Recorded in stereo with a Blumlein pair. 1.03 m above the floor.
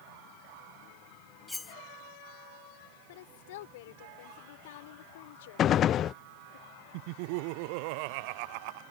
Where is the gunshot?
30° left.